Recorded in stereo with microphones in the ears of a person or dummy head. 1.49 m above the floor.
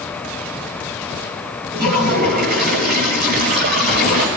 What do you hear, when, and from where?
1.7 s a toilet flushing: 50° right (ahead or behind), 4.5 m